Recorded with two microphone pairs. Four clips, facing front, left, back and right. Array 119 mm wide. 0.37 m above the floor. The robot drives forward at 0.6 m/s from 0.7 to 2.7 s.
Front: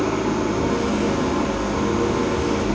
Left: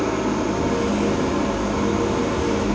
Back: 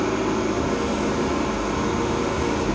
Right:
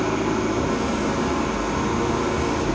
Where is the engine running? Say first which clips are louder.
Left 1 dB, front 1 dB; 55° right, 1.5 m; by 2.8 s 110° right, 1.3 m.